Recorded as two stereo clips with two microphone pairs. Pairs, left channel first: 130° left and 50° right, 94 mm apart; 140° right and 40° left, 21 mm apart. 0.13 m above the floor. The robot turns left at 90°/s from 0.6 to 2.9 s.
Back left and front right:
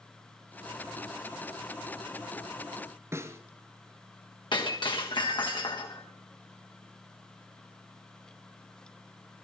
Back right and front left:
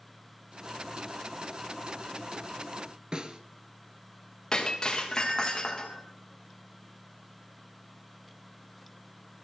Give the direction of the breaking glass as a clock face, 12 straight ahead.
7 o'clock.